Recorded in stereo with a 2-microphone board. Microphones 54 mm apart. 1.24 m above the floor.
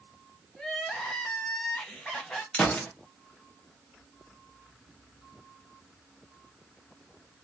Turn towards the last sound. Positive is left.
turn(degrees=20)  # may be behind; listen again after turning